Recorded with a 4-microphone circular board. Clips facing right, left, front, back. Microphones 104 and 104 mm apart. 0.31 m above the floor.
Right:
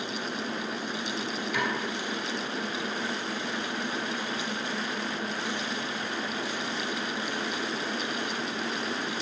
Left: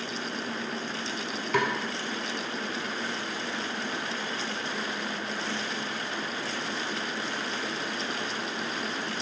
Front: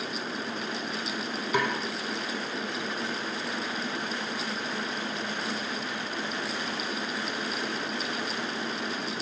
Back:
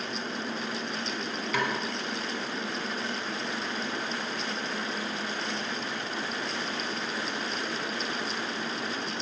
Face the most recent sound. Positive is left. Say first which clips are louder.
# left 5 dB, front 2 dB
turn(degrees=70)